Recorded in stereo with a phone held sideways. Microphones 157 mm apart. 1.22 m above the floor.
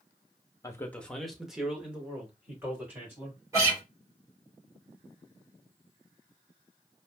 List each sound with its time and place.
0.6 s a man speaking: 20° left (ahead or behind), 0.6 m; by 3.4 s 15° right (ahead or behind), 2.5 m
3.5 s a guitar: 20° right (ahead or behind), 2 m